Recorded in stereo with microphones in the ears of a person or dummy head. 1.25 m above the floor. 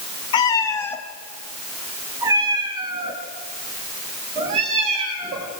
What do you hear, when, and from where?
0.3 s a cat meowing: 25° left (ahead or behind), 1.6 m; by 5.5 s 35° right (ahead or behind), 5 m